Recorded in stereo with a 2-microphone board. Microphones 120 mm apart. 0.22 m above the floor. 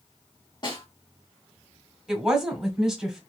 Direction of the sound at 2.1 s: 5° right (ahead or behind).